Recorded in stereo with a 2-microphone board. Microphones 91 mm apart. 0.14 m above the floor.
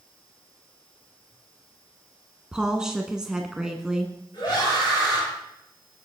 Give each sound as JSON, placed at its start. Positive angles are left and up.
{"t": 2.5, "sound": "a woman speaking", "side_deg": -10, "distance_m": 1.1}
{"t": 4.3, "sound": "a scream", "side_deg": 60, "distance_m": 7.5}